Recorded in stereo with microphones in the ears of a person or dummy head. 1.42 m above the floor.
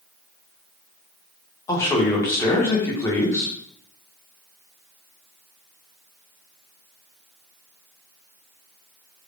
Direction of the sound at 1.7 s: 15° left (ahead or behind).